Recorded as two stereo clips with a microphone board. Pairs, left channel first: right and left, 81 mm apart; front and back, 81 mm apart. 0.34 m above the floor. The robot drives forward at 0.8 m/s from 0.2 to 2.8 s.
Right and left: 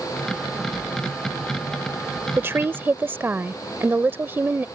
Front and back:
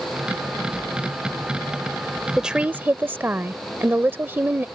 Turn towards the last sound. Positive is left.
turn(degrees=135)